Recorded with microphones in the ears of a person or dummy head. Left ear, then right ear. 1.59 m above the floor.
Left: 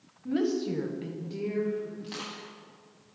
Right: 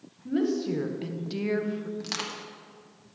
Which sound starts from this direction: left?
A woman speaking, at 0.2 s.